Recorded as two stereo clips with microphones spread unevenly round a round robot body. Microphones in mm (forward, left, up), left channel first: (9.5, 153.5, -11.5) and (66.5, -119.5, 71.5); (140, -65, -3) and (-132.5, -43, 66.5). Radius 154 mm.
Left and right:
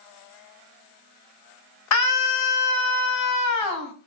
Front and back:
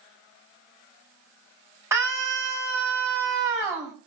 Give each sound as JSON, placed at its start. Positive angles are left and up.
{"t": 1.9, "sound": "a scream", "azimuth_deg": 90, "distance_m": 5.5}